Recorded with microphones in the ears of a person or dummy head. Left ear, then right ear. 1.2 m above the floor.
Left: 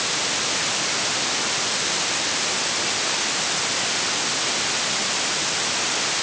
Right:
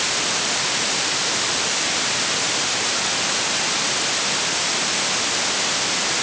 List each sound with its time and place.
Only background noise.